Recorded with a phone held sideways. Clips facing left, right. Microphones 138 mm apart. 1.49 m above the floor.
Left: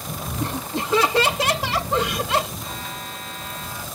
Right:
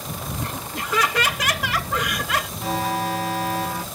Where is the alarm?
80° right.